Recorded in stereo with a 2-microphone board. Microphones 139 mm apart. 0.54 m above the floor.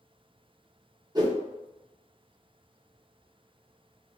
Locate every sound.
1.1 s a whoosh: 30° right (ahead or behind), 0.8 m